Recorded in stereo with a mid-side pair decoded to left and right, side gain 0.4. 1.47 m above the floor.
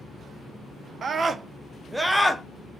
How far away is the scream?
About 0.8 m.